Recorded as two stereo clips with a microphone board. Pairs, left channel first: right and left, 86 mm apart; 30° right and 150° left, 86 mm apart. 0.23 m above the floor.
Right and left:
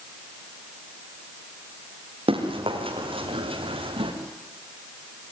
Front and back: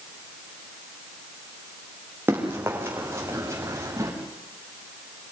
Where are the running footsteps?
85° left, 6.5 m; by 4.1 s 90° left, 6 m.